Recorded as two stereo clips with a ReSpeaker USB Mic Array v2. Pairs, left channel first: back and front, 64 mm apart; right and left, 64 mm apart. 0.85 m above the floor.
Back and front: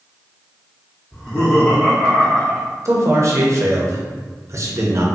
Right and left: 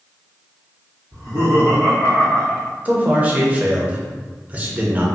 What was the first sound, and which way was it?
Laughter, 130° left.